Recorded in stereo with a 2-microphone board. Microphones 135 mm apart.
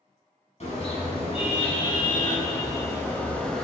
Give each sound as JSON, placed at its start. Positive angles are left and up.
{"t": 0.6, "sound": "a car horn", "side_deg": 50, "distance_m": 6.0}